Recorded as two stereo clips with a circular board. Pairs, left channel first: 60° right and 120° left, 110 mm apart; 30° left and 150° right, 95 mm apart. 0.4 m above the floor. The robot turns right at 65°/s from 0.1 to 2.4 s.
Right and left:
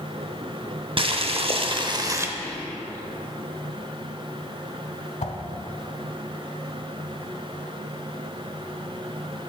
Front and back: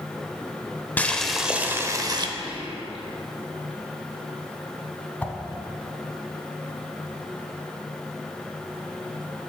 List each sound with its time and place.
1.0 s boiling: 100° left, 0.6 m; by 2.3 s straight behind, 0.6 m
2.4 s whispering: 130° right, 3 m
5.2 s a whoosh: 45° right, 0.8 m